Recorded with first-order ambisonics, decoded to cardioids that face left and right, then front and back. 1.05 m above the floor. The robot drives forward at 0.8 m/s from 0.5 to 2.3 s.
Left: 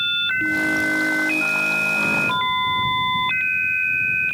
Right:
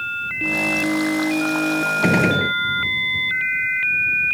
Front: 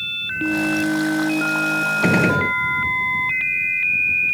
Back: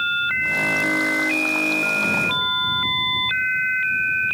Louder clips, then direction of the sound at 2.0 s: Right 2 dB, front 2 dB; 45° right.